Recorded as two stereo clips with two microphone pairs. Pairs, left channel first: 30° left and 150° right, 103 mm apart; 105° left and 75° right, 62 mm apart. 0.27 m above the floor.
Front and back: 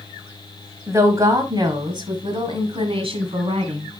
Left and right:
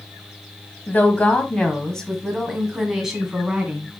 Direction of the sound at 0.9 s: 155° left.